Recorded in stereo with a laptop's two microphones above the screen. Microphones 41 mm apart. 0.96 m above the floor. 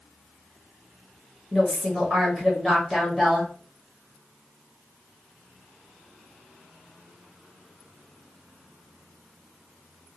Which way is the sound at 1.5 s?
Centre (ahead or behind).